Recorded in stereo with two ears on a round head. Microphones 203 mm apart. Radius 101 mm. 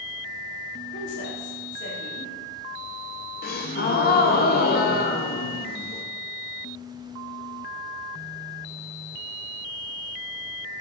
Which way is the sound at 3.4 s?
40° left (ahead or behind).